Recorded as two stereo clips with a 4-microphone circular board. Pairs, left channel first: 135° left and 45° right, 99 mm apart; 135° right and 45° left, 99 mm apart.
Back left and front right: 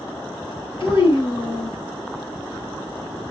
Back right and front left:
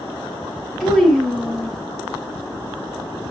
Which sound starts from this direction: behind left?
A child speaking, at 0.8 s.